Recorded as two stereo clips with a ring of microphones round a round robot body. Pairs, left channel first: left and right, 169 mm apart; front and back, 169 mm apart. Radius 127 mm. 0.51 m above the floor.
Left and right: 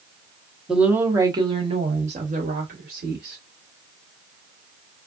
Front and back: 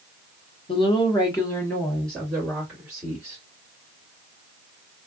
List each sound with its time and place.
0.7 s a woman speaking: 5° right, 1.0 m; by 3.4 s 100° right, 1.7 m